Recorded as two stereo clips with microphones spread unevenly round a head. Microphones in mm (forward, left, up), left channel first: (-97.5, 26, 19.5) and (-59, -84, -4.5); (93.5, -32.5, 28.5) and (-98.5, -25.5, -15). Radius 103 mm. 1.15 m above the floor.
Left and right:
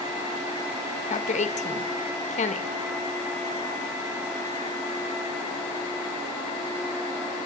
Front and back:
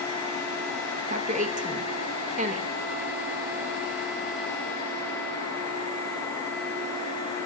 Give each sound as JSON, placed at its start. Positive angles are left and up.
{"t": 1.1, "sound": "a woman speaking", "azimuth_deg": 125, "distance_m": 1.2}